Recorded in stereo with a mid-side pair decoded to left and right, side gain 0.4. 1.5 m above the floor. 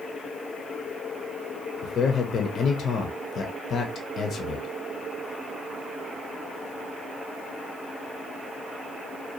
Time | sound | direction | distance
1.8 | a man speaking | 60° left | 0.5 m